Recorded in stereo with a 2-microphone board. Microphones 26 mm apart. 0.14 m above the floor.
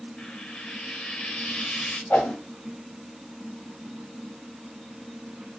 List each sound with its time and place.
0.2 s frying: 50° left (ahead or behind), 2.5 m
2.1 s a whoosh: 70° left (ahead or behind), 5.5 m